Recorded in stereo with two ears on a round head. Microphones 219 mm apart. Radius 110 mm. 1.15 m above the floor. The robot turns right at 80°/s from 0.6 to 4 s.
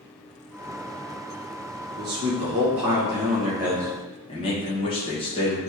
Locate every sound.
2.0 s a man speaking: 140° right, 1.3 m; by 5.6 s 25° left, 1.3 m